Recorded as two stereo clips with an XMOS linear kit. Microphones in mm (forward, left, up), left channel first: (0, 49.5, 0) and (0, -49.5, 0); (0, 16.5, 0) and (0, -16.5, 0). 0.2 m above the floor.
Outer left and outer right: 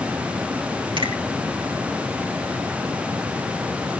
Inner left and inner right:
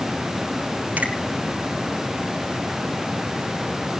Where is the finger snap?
55° right (ahead or behind), 4 m.